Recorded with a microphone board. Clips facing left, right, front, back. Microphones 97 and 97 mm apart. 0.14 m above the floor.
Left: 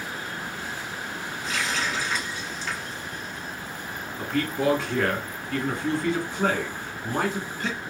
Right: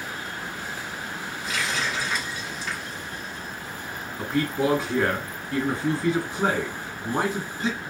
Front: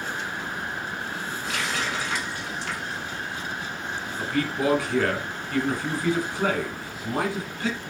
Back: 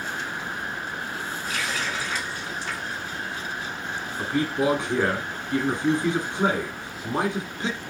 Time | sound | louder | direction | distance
1.4 | a running tap | even, front 1 dB | 5° right | 2.5 m
4.2 | a man speaking | right 1 dB, back 2 dB | 155° right | 1.6 m